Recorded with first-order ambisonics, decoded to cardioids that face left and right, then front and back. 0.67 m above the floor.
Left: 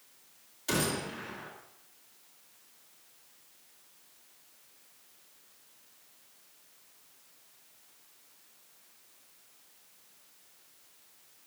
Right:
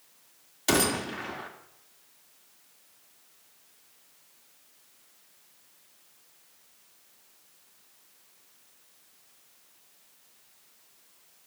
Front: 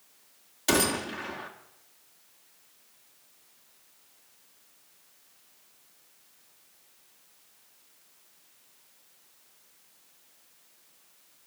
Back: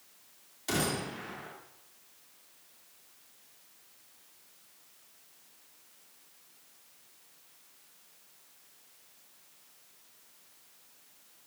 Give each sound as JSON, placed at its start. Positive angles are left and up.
{"t": 0.7, "sound": "a gunshot", "azimuth_deg": -55, "distance_m": 1.9}